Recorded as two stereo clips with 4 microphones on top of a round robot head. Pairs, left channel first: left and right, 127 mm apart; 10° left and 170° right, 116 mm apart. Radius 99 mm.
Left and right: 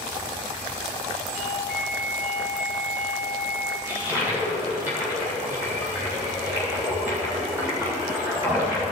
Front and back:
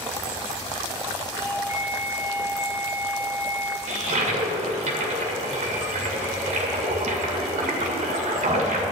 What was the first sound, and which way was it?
A doorbell, 100° right.